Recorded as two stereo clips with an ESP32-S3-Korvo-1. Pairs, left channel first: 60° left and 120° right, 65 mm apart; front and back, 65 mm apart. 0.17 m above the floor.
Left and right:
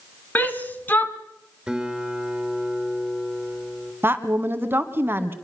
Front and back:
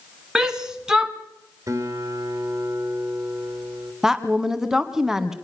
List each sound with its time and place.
0.3 s a shout: 105° left, 2 m
1.7 s a guitar: 160° left, 3 m
4.0 s a woman speaking: 105° right, 1.6 m